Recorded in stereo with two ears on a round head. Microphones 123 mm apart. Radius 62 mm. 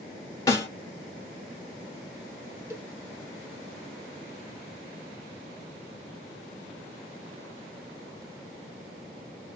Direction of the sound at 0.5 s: 20° left (ahead or behind).